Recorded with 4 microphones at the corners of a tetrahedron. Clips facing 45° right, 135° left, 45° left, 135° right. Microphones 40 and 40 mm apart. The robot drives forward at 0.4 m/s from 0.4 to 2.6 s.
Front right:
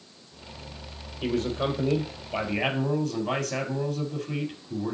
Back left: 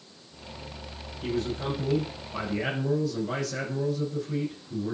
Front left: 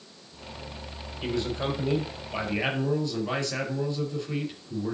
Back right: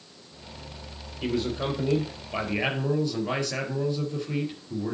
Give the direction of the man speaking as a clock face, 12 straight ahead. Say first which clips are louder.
Front right 3 dB, back right 1 dB; 2 o'clock.